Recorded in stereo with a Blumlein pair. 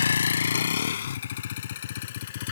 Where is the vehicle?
70° left; by 2.5 s 55° left.